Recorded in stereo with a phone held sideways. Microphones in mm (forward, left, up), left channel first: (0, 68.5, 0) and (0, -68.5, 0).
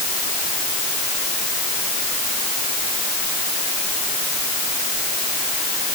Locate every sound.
Only background noise.